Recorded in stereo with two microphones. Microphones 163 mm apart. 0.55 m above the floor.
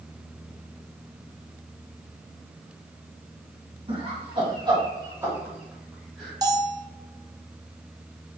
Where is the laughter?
35° right (ahead or behind), 1.5 m; by 6.3 s centre (ahead or behind), 1.3 m.